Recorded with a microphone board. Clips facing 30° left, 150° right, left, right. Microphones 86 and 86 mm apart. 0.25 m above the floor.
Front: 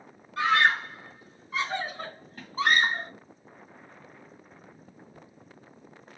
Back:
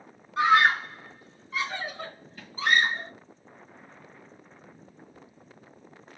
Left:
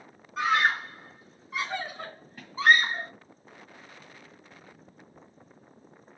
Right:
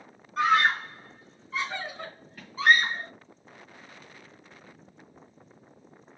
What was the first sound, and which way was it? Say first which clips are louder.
A scream: back 3 dB, right 2 dB; straight behind.